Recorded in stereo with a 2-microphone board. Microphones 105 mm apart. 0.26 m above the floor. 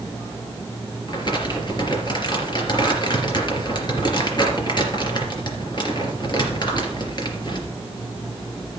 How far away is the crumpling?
About 3.5 m.